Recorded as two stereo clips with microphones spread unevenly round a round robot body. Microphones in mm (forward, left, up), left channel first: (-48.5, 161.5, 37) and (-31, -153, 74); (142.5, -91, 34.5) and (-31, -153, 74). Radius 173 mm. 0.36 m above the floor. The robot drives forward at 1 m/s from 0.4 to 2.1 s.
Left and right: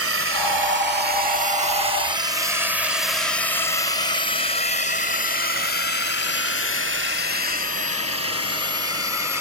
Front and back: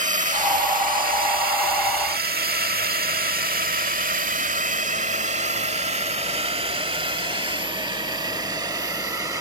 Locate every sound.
0.0 s a drone: 120° right; by 9.4 s 120° left